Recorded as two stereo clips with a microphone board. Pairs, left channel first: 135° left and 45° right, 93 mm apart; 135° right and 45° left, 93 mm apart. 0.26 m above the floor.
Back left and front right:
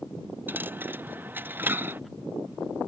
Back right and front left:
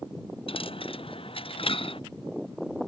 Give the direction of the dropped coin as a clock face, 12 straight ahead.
4 o'clock.